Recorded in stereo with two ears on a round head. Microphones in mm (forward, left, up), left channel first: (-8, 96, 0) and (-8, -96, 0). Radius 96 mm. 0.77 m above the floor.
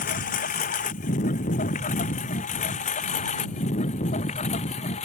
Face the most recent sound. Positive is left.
turn(degrees=30)  # may be behind; listen again after turning